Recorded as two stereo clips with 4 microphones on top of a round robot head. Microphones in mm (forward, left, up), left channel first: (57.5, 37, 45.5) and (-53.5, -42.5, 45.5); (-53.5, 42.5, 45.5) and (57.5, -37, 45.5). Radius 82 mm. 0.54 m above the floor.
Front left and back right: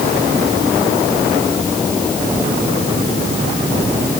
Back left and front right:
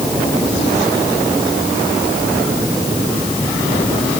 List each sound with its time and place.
Only background noise.